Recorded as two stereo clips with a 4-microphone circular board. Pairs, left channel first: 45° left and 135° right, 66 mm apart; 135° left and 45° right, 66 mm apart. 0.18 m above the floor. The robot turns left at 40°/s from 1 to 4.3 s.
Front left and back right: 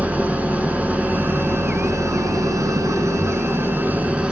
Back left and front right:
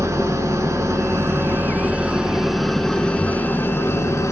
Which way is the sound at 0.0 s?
70° right.